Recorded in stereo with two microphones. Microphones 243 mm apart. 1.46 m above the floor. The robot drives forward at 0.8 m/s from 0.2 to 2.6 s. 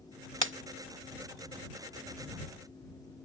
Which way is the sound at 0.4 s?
55° right (ahead or behind).